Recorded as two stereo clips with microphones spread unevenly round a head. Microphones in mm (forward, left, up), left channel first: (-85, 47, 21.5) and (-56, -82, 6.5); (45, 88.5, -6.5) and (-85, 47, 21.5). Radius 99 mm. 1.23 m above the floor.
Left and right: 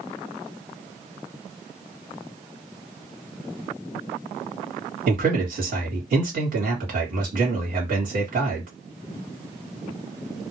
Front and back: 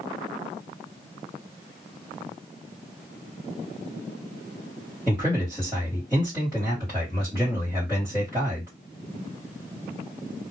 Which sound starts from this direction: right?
A man speaking, at 5.1 s.